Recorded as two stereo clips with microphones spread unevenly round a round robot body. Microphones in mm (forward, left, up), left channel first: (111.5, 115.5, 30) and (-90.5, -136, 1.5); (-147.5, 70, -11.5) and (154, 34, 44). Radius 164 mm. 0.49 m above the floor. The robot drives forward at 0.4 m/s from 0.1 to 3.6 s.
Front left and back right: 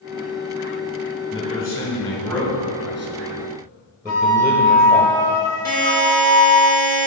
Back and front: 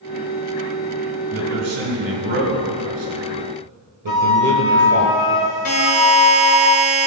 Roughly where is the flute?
Behind left.